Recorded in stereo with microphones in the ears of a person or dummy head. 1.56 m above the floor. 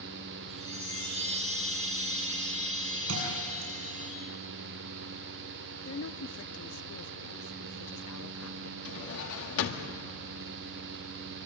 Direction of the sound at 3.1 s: 80° right.